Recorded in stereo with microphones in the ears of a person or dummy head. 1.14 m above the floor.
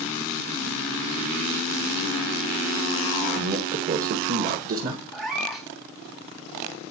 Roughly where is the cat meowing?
Centre.